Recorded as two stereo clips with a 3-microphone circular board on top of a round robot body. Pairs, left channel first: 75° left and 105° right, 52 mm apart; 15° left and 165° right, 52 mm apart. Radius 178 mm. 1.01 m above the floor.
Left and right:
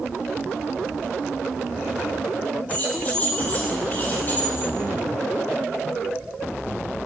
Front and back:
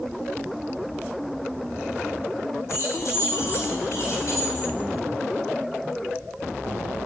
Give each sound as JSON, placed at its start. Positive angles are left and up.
{"t": 2.7, "sound": "keys jangling", "azimuth_deg": 15, "distance_m": 7.0}